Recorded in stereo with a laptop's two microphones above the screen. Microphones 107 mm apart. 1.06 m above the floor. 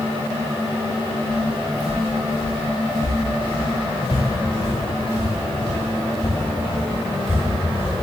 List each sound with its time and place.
1.3 s footsteps: 35° left (ahead or behind), 6 m; by 8.0 s 60° left (ahead or behind), 10.5 m